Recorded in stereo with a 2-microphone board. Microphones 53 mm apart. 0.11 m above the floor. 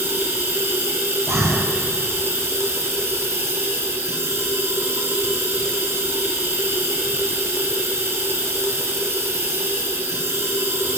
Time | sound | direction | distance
0.0 | running water | 55° right (ahead or behind) | 4.5 m
1.3 | breathing | 60° right (ahead or behind) | 3 m